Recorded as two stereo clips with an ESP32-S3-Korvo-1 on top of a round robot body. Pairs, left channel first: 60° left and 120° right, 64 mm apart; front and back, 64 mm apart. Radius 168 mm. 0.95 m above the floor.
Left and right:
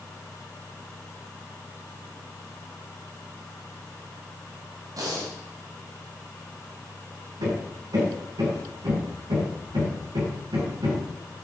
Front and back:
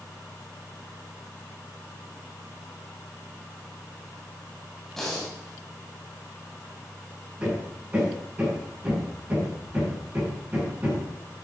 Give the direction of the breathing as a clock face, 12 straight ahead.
3 o'clock.